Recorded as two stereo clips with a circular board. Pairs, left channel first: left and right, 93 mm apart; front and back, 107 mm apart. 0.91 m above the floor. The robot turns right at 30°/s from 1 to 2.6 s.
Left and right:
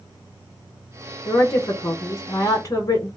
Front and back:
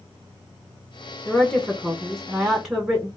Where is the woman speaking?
55° left, 0.7 m; by 3.1 s 100° left, 0.7 m.